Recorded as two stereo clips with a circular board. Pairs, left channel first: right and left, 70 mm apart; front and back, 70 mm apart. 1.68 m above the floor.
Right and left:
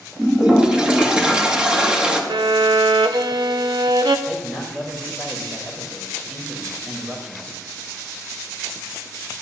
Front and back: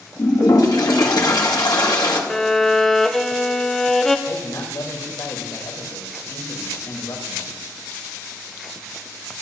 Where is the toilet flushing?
15° left, 2 m.